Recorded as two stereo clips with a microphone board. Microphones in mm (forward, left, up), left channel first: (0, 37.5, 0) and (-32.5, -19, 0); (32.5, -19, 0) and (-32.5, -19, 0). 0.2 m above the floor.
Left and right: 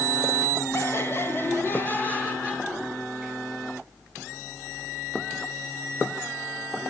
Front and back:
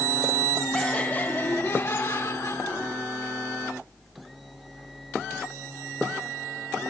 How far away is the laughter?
About 1.9 m.